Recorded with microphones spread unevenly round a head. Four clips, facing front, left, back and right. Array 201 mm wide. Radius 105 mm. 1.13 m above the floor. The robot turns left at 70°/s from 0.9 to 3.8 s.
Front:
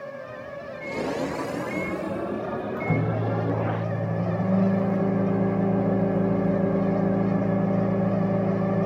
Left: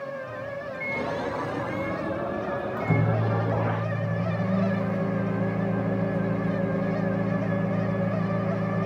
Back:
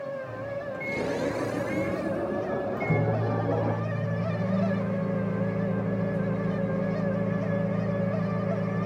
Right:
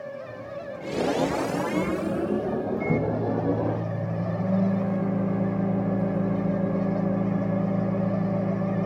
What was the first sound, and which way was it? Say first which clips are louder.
A microwave: left 2 dB, back 2 dB; 165° right.